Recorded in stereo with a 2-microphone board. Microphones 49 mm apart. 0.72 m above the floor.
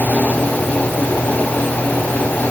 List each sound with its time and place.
Only background noise.